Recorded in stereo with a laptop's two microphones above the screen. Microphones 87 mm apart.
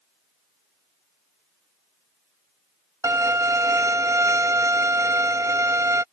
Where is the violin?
40° right (ahead or behind).